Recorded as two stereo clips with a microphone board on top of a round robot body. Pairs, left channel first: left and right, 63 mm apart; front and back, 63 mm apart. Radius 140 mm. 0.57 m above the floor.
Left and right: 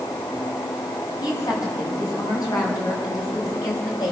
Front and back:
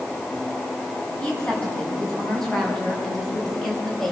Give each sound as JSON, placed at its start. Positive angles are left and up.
{"t": 1.2, "sound": "a woman speaking", "azimuth_deg": 75, "distance_m": 7.5}